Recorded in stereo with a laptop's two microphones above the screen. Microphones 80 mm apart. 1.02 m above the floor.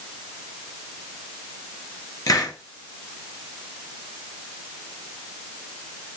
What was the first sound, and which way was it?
A hiss, 50° left (ahead or behind).